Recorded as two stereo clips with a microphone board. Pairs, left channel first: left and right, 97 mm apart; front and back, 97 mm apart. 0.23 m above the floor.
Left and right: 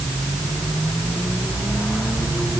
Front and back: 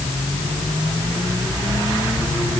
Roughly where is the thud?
No thud in this recording.